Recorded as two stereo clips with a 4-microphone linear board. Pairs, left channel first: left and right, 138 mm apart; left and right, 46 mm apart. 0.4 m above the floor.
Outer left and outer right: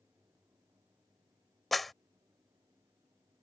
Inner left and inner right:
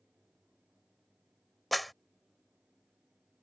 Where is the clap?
Centre (ahead or behind).